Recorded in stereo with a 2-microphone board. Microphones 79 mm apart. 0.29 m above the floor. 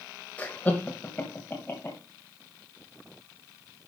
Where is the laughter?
20° left (ahead or behind), 1.2 m; by 2.0 s 25° left (ahead or behind), 1.9 m.